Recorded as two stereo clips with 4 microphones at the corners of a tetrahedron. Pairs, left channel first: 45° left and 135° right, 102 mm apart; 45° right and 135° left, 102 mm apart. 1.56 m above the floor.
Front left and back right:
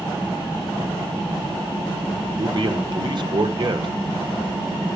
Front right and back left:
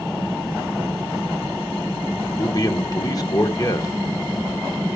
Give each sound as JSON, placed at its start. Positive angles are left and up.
{"t": 2.4, "sound": "a man speaking", "azimuth_deg": -95, "distance_m": 1.1}